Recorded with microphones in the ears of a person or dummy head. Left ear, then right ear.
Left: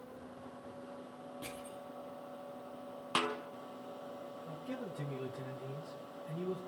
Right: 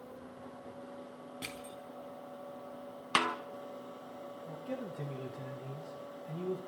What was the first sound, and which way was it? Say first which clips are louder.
Crushing: right 3 dB; 45° right (ahead or behind).